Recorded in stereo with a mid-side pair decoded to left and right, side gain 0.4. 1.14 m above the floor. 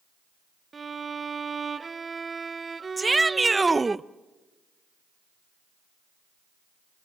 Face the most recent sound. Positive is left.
turn(degrees=-20)